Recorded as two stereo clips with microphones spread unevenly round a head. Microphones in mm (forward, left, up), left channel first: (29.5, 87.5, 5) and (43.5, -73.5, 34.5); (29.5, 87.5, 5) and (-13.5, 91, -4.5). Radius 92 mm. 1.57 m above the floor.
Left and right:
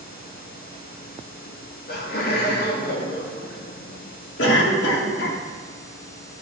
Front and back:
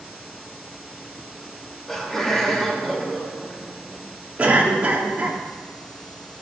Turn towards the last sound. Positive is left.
turn(degrees=115)